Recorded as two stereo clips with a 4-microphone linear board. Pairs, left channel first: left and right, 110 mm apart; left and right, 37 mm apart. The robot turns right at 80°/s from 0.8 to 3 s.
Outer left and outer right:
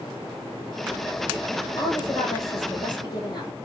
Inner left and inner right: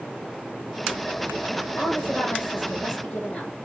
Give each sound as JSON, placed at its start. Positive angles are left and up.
{"t": 1.8, "sound": "a woman speaking", "azimuth_deg": 40, "distance_m": 4.0}